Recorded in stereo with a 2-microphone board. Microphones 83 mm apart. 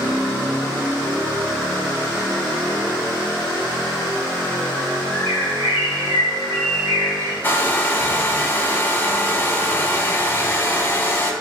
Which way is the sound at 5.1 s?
35° right (ahead or behind).